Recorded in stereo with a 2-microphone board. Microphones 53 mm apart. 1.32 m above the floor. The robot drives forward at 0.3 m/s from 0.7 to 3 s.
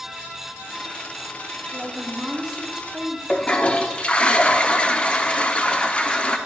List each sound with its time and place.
1.7 s a woman speaking: 5° right (ahead or behind), 1.5 m; by 3.2 s 10° right (ahead or behind), 1.1 m
3.3 s a toilet flushing: 20° left (ahead or behind), 0.5 m